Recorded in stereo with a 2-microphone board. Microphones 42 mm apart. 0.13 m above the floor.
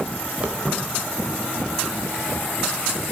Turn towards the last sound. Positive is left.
turn(degrees=30)  # may be behind; listen again after turning